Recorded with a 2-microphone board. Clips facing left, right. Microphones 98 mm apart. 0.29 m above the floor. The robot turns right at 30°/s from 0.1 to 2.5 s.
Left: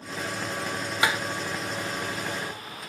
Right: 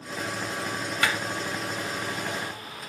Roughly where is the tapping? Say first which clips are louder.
Left 2 dB; centre.